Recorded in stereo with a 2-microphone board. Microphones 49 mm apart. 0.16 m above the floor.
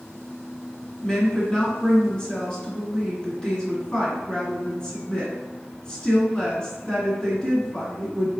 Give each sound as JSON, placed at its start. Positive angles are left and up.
{"t": 1.0, "sound": "a woman speaking", "side_deg": 15, "distance_m": 1.9}